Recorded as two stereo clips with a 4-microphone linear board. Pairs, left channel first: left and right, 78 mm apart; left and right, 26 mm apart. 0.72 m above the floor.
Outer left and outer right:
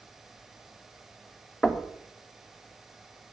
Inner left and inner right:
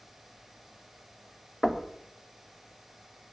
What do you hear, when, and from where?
1.6 s knocking: 10° left (ahead or behind), 1.3 m